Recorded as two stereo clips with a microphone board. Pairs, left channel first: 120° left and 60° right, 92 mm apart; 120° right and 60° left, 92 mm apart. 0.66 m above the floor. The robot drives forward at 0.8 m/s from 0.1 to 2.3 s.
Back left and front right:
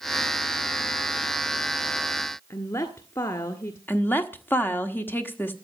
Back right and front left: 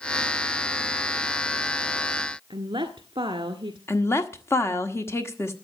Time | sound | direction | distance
2.5 | a woman speaking | 75° left | 1.5 m
3.9 | a woman speaking | 175° right | 1.3 m